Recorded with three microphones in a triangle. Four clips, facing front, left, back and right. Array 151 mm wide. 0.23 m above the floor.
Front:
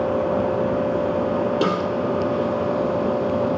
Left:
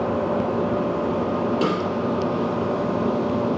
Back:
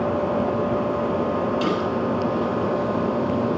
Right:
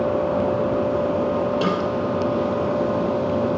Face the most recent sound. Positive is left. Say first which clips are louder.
# right 1 dB, front 2 dB
turn(degrees=15)